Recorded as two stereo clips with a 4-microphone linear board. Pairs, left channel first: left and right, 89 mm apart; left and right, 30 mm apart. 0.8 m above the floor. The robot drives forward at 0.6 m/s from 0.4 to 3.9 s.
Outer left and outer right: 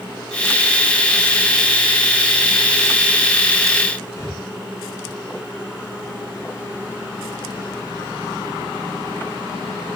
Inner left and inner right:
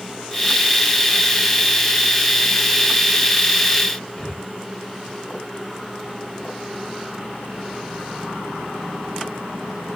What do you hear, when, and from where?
4.2 s breathing: 30° left (ahead or behind), 2 m